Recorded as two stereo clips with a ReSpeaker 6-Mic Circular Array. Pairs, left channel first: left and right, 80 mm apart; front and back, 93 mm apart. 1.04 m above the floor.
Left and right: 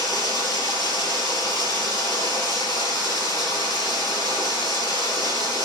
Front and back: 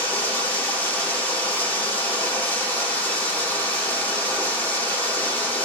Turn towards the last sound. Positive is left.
turn(degrees=70)